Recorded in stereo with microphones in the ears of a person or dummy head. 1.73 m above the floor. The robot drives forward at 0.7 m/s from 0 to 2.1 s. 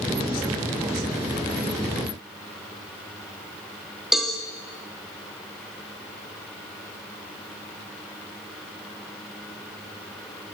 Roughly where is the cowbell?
Centre.